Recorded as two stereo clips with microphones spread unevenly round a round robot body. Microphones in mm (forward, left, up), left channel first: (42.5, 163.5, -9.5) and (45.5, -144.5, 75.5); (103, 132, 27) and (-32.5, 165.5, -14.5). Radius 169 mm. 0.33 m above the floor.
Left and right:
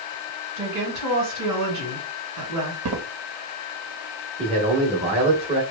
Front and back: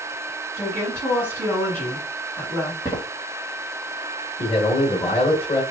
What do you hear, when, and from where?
0.6 s a woman speaking: 110° right, 1.8 m
2.9 s footsteps: 85° right, 0.9 m
4.4 s a man speaking: 10° right, 1.0 m